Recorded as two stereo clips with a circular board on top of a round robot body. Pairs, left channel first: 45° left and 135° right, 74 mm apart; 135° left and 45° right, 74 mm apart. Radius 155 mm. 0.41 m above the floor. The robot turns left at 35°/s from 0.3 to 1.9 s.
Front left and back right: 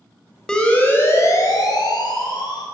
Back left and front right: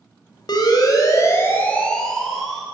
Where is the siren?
125° left, 4.5 m; by 2.6 s 45° left, 4.5 m.